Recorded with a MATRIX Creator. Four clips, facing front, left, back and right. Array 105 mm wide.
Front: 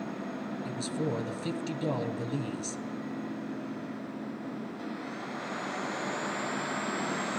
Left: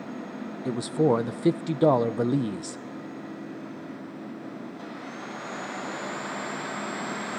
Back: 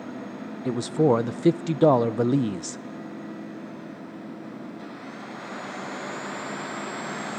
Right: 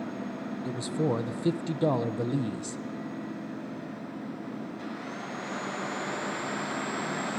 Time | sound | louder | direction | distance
0.7 | a man speaking | left 7 dB, back 14 dB | 155° left | 0.8 m